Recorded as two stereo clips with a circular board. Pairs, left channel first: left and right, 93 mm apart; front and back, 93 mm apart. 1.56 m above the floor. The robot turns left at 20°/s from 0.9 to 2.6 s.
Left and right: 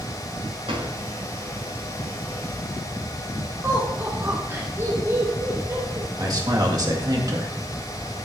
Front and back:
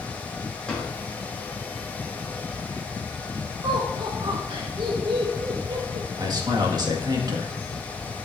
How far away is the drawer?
About 4.5 m.